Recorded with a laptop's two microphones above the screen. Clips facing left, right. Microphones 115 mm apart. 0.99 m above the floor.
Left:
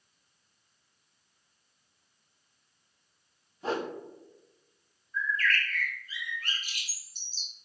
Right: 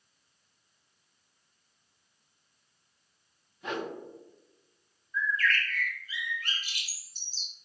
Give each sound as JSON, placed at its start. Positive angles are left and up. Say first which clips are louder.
{"t": 3.6, "sound": "a whoosh", "louder": "left 3 dB", "side_deg": 35, "distance_m": 0.5}
{"t": 5.1, "sound": "a bird", "louder": "right 1 dB", "side_deg": 45, "distance_m": 1.0}